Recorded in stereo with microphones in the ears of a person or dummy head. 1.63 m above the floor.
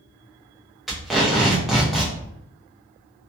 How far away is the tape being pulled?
About 0.7 m.